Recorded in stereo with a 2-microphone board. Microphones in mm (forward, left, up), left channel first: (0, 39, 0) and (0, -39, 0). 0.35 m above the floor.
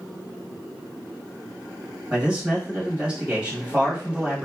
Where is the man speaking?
15° right (ahead or behind), 1.5 m.